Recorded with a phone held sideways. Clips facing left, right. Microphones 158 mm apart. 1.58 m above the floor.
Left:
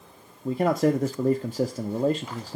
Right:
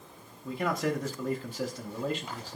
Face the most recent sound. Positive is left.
turn(degrees=45)  # may be behind; listen again after turning